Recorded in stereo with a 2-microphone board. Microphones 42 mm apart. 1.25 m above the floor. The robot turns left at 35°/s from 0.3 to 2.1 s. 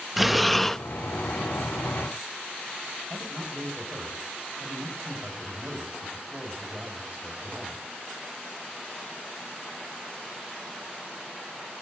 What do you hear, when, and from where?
0.2 s breathing: 5° right (ahead or behind), 0.6 m; by 0.8 s 10° left (ahead or behind), 0.6 m
3.1 s a man speaking: 30° right (ahead or behind), 7.5 m